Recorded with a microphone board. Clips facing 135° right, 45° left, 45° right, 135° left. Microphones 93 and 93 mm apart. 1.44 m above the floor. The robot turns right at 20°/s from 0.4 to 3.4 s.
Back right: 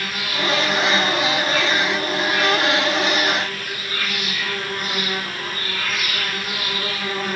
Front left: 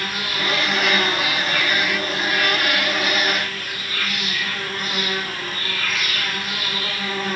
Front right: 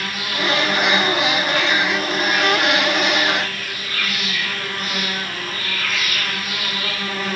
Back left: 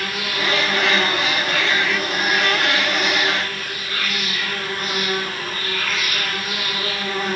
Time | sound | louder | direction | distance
0.0 | an insect | back right 1 dB, even | 125° left | 5 m